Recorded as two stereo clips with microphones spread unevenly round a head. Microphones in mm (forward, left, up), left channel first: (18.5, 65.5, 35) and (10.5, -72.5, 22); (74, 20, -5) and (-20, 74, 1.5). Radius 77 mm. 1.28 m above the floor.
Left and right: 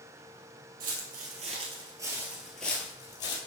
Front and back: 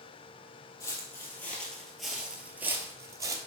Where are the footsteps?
95° right, 1.8 m; by 3.4 s 120° left, 1.6 m.